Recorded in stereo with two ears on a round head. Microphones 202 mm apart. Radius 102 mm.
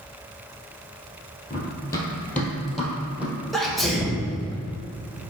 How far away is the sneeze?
About 1.4 m.